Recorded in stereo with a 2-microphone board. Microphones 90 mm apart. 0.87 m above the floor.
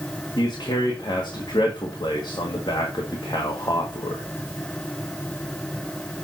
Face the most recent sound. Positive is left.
turn(degrees=55)  # may be behind; listen again after turning